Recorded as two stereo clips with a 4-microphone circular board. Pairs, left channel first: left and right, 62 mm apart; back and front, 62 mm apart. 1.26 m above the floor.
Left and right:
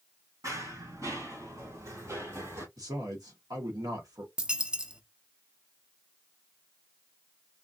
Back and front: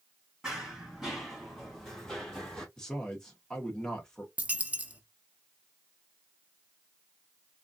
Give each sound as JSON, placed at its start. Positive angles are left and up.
{"t": 0.4, "sound": "running footsteps", "azimuth_deg": -80, "distance_m": 2.5}
{"t": 2.8, "sound": "a man speaking", "azimuth_deg": -100, "distance_m": 1.3}
{"t": 4.4, "sound": "a dropped coin", "azimuth_deg": -35, "distance_m": 0.5}